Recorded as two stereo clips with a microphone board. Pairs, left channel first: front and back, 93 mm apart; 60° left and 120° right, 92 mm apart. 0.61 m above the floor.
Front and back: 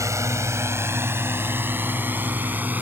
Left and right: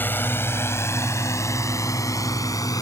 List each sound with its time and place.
0.0 s a drone: 130° left; by 2.8 s 110° left